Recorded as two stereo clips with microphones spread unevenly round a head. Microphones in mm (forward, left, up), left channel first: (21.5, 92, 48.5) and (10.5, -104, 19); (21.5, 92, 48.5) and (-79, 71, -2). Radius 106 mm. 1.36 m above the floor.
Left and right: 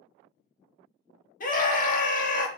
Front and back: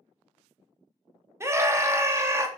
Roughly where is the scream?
Behind left.